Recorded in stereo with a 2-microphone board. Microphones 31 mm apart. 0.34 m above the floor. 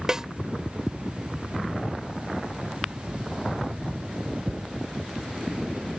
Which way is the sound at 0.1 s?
20° right (ahead or behind).